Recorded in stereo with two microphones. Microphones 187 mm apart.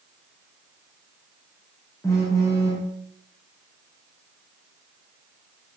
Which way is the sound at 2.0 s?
15° left (ahead or behind).